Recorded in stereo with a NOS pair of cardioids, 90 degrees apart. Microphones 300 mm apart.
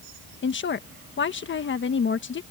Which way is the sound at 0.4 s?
40° left.